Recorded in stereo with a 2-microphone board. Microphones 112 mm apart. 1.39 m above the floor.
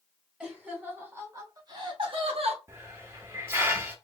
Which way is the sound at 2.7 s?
25° right (ahead or behind).